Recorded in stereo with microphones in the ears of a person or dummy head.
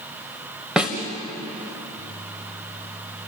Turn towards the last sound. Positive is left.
turn(degrees=-5)  # may be behind; listen again after turning